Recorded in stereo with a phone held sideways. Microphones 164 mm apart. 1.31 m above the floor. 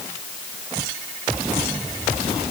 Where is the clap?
I don't hear a clap.